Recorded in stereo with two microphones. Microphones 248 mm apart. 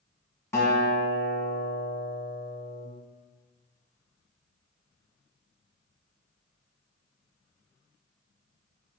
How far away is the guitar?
About 1.4 m.